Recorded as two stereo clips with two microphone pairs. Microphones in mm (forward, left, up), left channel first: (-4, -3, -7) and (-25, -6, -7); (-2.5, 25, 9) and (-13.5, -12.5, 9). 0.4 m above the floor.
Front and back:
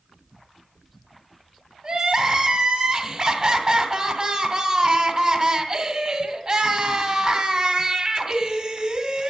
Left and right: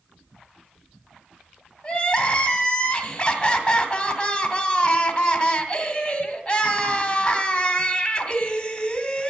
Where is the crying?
140° left, 2 m.